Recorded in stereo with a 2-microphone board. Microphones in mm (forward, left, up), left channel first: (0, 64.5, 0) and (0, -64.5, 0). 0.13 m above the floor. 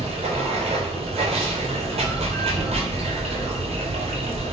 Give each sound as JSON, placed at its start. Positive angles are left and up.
{"t": 0.0, "sound": "running water", "side_deg": -55, "distance_m": 0.8}